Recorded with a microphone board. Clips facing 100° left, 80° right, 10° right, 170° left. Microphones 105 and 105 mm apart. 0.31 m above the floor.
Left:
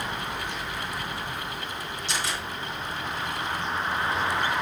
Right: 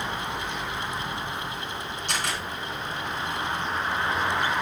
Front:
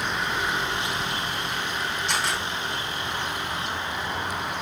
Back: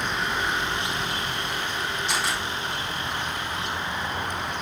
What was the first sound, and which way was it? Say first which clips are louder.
A camera shutter: right 1 dB, front 1 dB; 100° right.